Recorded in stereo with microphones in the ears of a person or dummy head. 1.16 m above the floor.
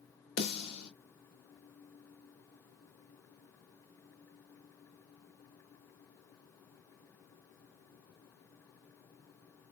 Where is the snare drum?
65° left (ahead or behind), 2 m.